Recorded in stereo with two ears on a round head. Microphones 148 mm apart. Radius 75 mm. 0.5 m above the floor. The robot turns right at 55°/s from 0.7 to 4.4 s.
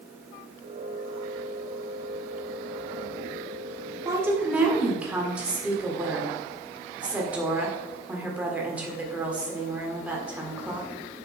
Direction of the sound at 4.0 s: 20° right (ahead or behind).